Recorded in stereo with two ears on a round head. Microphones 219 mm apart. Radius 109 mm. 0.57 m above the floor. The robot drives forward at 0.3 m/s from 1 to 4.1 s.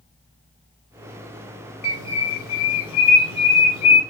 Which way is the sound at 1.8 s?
75° left (ahead or behind).